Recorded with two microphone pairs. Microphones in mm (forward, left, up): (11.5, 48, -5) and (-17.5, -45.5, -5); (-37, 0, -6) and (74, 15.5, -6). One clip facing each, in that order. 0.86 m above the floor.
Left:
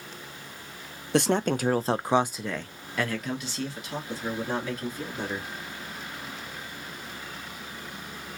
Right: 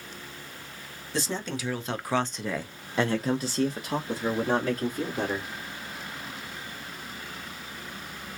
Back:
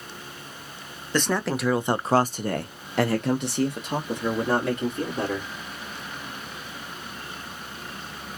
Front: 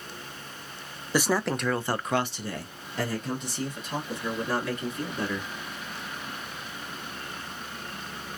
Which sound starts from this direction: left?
A man speaking, at 1.1 s.